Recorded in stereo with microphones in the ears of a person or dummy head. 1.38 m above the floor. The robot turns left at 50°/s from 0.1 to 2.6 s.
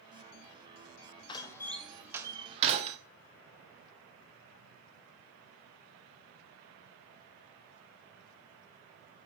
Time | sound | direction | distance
1.3 | a door slam | 30° left (ahead or behind) | 0.7 m